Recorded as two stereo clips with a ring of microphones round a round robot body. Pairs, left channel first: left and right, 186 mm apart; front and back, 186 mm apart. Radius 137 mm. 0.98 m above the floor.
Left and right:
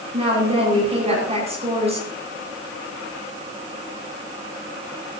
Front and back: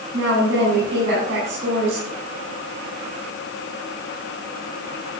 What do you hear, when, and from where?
0.1 s a woman speaking: 145° right, 9 m